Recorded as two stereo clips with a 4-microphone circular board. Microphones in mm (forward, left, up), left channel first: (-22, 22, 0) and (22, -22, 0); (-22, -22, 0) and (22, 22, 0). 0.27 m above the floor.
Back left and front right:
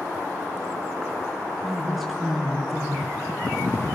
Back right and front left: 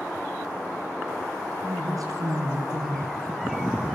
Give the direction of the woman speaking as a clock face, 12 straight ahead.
10 o'clock.